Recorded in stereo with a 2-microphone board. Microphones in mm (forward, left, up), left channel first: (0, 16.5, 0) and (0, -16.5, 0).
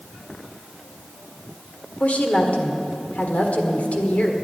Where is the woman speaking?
55° left (ahead or behind), 1.7 m.